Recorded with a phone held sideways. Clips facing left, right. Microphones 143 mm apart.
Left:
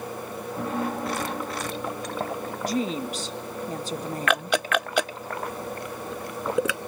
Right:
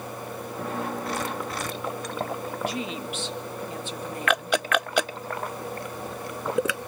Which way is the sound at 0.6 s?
75° left (ahead or behind).